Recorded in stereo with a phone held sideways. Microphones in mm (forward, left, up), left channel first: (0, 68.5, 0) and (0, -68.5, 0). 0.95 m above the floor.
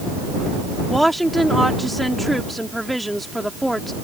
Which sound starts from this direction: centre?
A woman speaking, at 0.9 s.